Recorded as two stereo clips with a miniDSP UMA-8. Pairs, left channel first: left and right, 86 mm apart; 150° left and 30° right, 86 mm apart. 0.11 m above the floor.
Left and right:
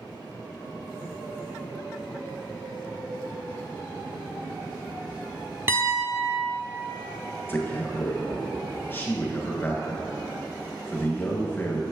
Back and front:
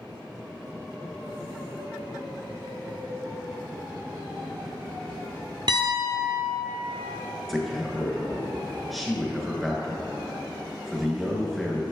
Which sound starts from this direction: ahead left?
A man speaking, at 7.5 s.